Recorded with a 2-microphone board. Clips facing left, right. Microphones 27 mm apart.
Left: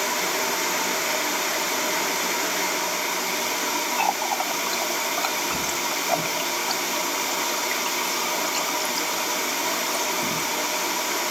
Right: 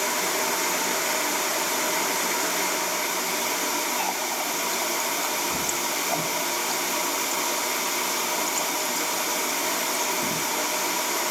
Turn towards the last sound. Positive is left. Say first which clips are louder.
# left 4 dB
turn(degrees=55)  # may be behind; listen again after turning